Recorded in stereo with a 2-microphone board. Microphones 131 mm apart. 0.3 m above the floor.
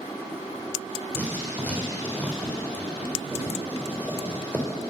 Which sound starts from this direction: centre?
Writing, at 1.1 s.